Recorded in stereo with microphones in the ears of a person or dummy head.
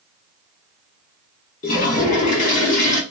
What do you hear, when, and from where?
1.6 s a toilet flushing: 35° left (ahead or behind), 0.7 m